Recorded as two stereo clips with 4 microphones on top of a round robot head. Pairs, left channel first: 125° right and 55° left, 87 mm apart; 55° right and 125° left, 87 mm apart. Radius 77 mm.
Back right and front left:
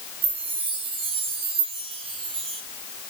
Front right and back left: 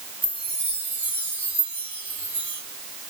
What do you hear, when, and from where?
0.2 s a chime: 50° left, 5.5 m